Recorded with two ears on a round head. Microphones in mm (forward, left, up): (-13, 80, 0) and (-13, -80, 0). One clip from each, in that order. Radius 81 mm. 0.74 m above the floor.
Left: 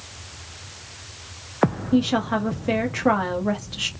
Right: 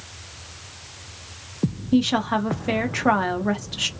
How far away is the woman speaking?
About 0.7 m.